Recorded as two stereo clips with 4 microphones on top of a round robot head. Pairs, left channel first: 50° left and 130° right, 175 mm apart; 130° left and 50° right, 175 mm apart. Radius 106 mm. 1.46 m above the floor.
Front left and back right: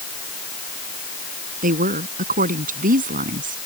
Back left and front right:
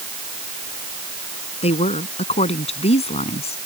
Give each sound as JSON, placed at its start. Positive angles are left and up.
{"t": 1.6, "sound": "a woman speaking", "azimuth_deg": -175}